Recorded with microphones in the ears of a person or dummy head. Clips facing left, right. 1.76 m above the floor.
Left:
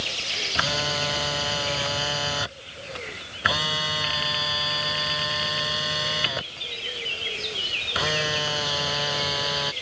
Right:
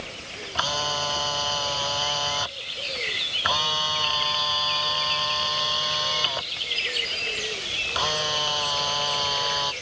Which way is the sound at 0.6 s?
25° left (ahead or behind).